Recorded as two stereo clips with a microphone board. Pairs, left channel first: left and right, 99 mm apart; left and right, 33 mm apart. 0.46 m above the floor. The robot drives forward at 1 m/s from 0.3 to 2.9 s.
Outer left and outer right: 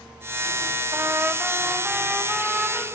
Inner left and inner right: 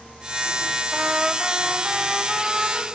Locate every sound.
0.9 s a trumpet: 30° right (ahead or behind), 0.6 m; by 2.9 s 5° right (ahead or behind), 2.5 m